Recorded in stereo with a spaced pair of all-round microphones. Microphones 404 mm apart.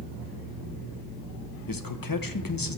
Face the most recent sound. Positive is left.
turn(degrees=55)  # may be behind; listen again after turning